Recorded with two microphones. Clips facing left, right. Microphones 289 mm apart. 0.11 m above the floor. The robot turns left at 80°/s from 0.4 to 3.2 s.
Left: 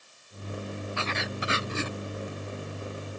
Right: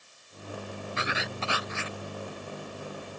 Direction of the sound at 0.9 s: 155° right.